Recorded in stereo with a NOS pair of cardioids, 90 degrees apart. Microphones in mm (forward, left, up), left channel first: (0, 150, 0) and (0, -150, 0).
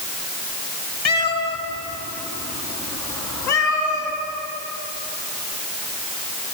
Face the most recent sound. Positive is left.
turn(degrees=70)